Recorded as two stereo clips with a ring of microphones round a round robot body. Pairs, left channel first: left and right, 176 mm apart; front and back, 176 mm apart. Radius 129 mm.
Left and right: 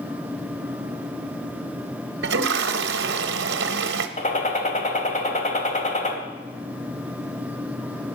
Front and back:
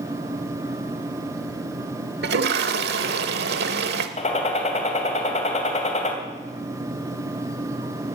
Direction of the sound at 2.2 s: 135° right.